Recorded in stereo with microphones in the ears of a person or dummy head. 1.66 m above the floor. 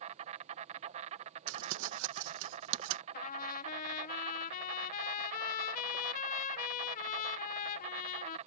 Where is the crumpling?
75° right (ahead or behind).